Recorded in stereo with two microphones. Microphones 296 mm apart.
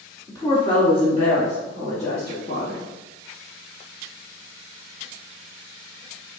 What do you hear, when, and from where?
0.3 s a woman speaking: 10° left (ahead or behind), 1.2 m; by 2.8 s 25° left (ahead or behind), 3.5 m